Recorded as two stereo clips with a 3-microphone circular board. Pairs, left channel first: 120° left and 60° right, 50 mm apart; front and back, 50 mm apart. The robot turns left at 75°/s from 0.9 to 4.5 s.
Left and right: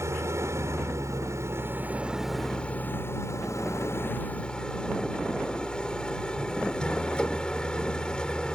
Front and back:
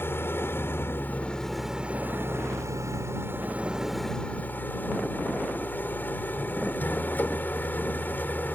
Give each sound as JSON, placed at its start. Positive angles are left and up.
{"t": 0.0, "sound": "an engine running", "azimuth_deg": -40}